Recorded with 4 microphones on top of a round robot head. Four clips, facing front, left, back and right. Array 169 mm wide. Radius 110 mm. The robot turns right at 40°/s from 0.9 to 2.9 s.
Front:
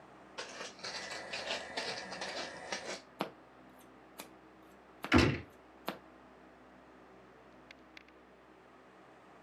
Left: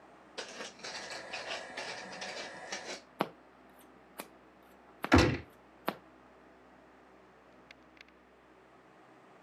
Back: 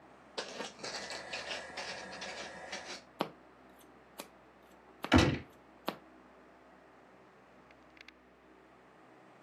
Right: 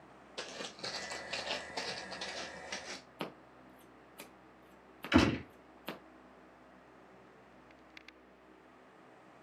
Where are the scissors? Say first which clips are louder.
Left 9 dB, back 5 dB; 105° left, 0.6 m.